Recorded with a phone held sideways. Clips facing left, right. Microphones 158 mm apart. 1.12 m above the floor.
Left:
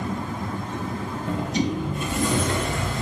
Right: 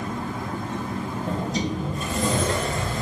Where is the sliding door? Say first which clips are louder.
Left 3 dB; 35° right (ahead or behind), 3.5 m.